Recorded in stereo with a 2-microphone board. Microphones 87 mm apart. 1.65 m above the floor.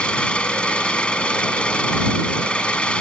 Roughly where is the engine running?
Centre.